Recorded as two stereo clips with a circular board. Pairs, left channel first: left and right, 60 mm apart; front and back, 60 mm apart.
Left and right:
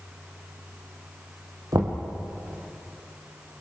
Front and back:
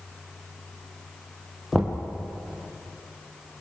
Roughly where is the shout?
I don't hear a shout.